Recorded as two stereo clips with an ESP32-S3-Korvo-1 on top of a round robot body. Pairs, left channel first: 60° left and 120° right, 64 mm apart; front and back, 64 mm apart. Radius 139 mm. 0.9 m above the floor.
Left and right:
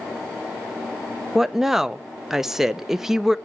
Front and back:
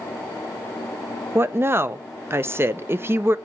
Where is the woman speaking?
160° left, 0.8 m.